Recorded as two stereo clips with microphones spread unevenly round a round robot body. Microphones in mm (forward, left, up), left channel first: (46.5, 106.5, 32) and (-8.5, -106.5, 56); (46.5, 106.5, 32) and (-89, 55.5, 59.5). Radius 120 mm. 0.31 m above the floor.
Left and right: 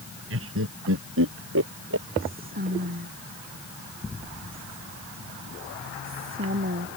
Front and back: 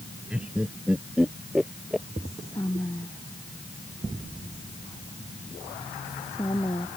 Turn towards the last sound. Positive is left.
turn(degrees=-55)